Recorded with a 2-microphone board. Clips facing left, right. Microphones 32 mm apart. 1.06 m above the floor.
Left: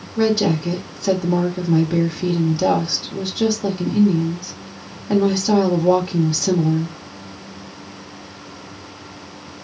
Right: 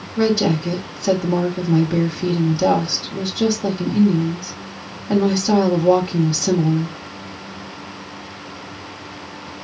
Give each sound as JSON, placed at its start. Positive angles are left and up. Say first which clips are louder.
{"t": 0.2, "sound": "a woman speaking", "louder": "even", "side_deg": 10, "distance_m": 1.4}